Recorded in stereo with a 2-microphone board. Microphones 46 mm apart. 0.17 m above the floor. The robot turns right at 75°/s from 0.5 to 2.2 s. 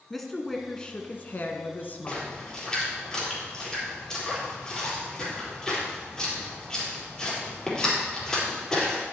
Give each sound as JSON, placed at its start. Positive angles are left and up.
{"t": 0.1, "sound": "a woman speaking", "azimuth_deg": 5, "distance_m": 1.4}
{"t": 2.1, "sound": "a splash", "side_deg": 25, "distance_m": 4.0}